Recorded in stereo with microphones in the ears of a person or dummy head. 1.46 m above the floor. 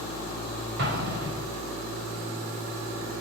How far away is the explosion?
About 5 m.